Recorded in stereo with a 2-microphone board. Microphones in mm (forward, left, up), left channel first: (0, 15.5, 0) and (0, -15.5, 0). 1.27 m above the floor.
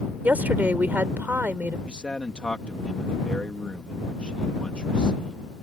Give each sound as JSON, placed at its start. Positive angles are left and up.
{"t": 0.2, "sound": "a woman speaking", "side_deg": -85}
{"t": 1.9, "sound": "a man speaking", "side_deg": 40}